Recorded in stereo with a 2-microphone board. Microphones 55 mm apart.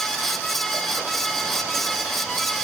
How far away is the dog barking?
No dog barking in this recording.